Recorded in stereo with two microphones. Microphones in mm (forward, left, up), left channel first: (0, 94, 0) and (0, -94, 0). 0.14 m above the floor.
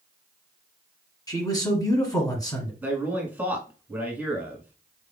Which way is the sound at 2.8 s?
10° right (ahead or behind).